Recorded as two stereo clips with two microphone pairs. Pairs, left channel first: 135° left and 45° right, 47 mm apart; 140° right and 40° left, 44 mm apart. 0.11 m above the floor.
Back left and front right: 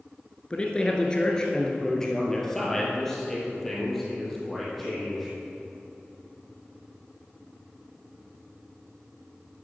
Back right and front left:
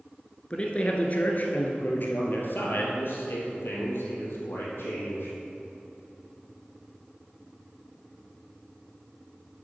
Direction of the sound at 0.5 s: 175° left.